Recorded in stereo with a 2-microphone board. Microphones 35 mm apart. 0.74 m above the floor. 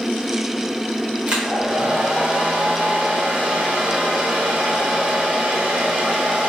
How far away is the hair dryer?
About 0.7 m.